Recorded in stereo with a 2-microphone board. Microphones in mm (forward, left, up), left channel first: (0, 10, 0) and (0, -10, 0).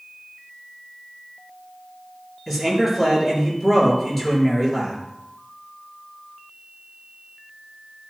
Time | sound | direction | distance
2.5 | a man speaking | 10° left (ahead or behind) | 5 m